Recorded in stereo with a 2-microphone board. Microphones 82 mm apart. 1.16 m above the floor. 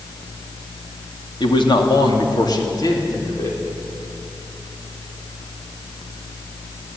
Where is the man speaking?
75° left (ahead or behind), 2.5 m; by 3.6 s 40° left (ahead or behind), 4.5 m.